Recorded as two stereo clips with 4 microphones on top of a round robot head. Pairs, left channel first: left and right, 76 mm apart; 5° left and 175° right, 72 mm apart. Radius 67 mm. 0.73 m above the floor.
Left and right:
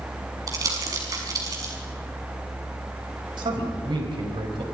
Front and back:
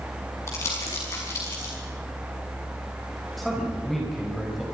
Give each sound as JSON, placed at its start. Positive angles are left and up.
{"t": 0.5, "sound": "crumpling", "azimuth_deg": -50, "distance_m": 5.5}
{"t": 3.4, "sound": "a man speaking", "azimuth_deg": -80, "distance_m": 4.5}